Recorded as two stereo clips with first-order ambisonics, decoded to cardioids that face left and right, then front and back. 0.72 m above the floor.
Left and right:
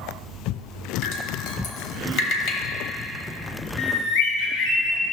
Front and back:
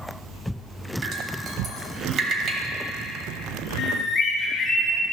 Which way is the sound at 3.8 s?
65° left.